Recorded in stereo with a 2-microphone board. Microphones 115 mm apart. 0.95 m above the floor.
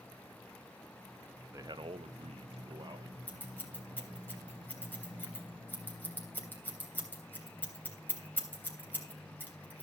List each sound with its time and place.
1.5 s a man speaking: 30° right (ahead or behind), 0.9 m; by 3.2 s 35° right (ahead or behind), 1.9 m
3.3 s scissors: 15° left (ahead or behind), 3 m